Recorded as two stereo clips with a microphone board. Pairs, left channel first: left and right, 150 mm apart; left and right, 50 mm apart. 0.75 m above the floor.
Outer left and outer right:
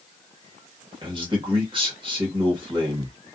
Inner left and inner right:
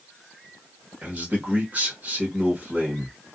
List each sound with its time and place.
1.0 s a man speaking: 35° right (ahead or behind), 1.2 m